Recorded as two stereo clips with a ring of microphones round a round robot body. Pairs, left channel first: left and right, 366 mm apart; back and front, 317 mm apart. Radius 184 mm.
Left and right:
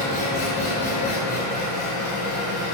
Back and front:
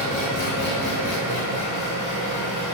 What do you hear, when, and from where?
0.0 s an engine running: 145° left, 1.0 m